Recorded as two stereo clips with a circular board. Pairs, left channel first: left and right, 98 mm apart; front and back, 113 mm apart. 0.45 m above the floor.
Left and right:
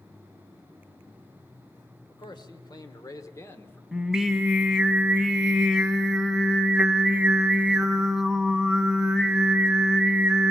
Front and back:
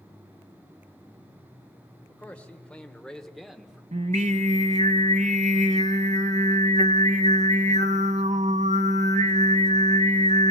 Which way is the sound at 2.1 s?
75° left.